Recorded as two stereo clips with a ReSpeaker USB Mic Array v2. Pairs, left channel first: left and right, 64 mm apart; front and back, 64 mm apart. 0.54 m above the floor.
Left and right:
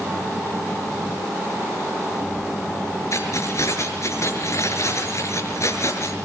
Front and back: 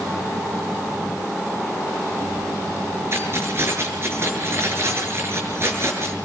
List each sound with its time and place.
3.1 s keys jangling: 130° left, 6 m